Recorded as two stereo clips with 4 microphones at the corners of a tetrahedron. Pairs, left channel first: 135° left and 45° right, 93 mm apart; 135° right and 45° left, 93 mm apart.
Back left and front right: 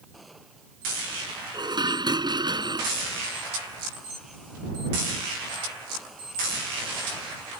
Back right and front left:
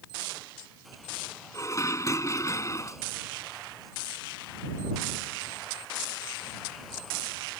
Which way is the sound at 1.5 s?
80° right.